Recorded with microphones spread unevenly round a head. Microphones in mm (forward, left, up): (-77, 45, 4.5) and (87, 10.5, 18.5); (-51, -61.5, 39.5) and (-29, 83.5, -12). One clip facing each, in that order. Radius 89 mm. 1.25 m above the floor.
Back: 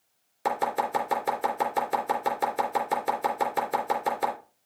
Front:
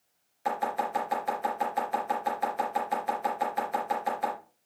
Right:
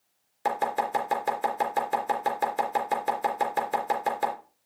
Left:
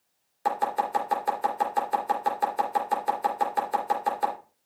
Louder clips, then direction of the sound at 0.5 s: Back 3 dB, left 1 dB; 150° right.